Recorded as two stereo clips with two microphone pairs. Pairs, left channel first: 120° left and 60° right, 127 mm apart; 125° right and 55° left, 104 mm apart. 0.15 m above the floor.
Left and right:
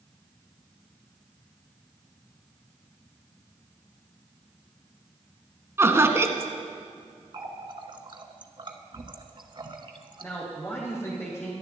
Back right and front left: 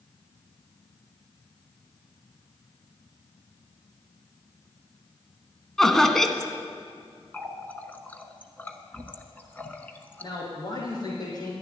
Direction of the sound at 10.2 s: 170° right.